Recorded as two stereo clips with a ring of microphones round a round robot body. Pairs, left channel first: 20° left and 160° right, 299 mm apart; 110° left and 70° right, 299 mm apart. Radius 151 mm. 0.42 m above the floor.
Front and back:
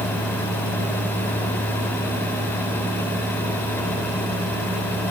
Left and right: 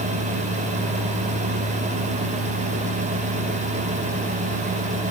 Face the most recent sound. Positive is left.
No sound to turn to.